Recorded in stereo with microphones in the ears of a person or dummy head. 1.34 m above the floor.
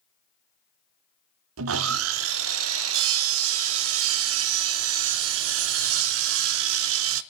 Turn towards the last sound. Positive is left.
turn(degrees=-70)  # may be behind; listen again after turning